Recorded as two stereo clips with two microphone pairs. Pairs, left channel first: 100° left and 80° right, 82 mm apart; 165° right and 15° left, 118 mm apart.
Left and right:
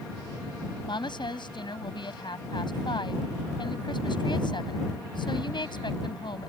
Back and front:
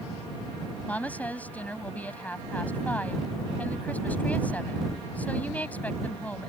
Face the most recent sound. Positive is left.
turn(degrees=115)